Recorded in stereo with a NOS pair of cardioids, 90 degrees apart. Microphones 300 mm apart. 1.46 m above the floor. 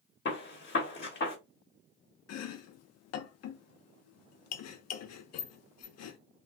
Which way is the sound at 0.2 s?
40° left.